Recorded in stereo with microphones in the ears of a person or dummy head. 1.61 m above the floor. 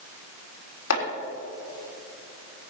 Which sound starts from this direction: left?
Chopping, at 0.9 s.